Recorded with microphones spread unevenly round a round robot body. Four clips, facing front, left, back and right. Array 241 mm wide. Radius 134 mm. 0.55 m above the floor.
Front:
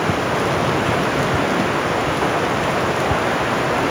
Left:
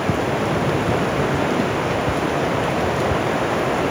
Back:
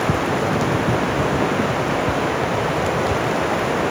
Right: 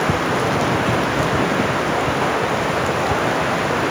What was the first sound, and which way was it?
Only background noise.